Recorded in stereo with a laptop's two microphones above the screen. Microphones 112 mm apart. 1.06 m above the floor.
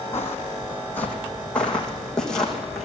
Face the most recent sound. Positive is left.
turn(degrees=5)  # may be behind; listen again after turning